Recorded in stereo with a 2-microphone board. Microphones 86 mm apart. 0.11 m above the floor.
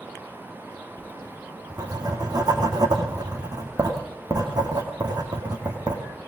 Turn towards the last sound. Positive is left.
turn(degrees=-50)  # may be behind; listen again after turning